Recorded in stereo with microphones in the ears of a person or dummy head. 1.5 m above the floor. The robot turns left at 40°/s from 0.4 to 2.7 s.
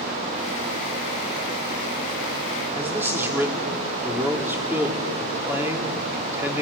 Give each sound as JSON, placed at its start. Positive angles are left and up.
{"t": 2.8, "sound": "a man speaking", "side_deg": -15, "distance_m": 3.0}